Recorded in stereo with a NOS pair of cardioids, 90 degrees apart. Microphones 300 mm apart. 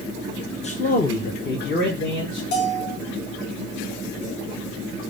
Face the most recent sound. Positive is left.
turn(degrees=70)